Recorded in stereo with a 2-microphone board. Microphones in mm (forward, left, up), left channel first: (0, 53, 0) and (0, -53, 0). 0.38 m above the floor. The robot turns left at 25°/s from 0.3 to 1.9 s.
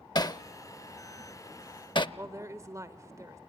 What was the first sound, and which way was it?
Hammering, 40° left (ahead or behind).